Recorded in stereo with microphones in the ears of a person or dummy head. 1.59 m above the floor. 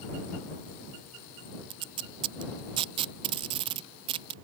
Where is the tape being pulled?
25° right (ahead or behind).